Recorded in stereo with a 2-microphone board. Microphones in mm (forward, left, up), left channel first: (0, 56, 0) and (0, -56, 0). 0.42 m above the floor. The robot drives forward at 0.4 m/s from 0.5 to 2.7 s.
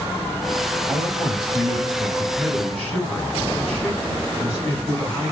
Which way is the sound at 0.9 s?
Centre (ahead or behind).